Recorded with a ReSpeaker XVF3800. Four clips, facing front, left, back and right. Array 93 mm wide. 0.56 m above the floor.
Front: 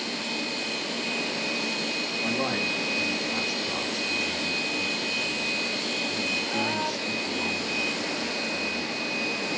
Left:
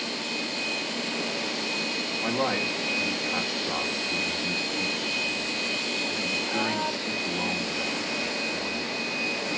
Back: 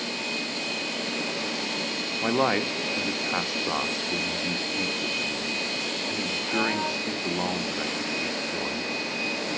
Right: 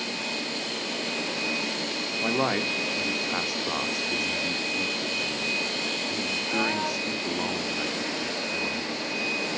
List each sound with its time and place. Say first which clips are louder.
2.2 s a man speaking: right 1 dB, back 6 dB; 165° right, 0.9 m